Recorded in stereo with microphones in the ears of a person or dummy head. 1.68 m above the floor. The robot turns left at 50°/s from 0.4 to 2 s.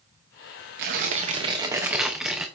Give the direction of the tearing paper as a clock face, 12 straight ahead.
4 o'clock.